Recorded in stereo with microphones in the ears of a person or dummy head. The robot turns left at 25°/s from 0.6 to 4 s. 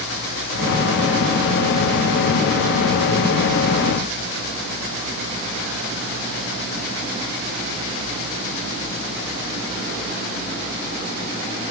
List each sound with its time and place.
Only background noise.